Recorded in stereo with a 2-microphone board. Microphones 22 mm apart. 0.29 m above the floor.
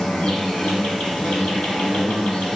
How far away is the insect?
About 2 m.